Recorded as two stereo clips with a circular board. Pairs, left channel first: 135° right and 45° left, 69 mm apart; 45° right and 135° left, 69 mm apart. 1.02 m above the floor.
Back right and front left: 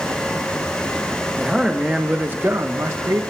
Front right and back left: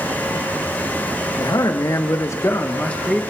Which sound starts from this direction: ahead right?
A man speaking, at 1.4 s.